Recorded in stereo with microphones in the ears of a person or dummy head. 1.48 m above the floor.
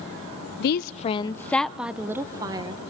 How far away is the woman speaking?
About 0.5 m.